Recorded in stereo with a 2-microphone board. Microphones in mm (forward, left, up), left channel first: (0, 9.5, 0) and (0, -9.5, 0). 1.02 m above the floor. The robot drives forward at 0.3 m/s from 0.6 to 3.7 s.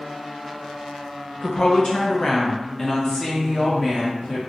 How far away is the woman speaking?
About 0.6 m.